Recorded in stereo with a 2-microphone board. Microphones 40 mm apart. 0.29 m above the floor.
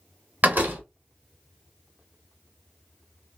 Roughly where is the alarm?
I don't hear an alarm.